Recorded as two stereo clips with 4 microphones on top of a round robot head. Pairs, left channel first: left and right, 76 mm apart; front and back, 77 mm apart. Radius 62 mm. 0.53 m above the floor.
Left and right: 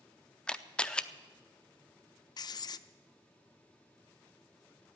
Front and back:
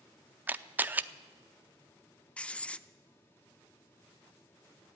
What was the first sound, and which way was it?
A camera shutter, 150° left.